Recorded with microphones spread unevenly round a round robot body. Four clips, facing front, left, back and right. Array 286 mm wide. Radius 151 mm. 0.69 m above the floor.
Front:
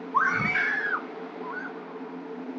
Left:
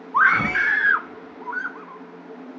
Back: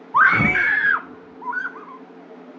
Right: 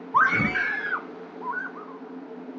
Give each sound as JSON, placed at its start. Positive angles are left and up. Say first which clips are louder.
{"t": 0.1, "sound": "a scream", "louder": "left 3 dB, back 8 dB", "azimuth_deg": -120}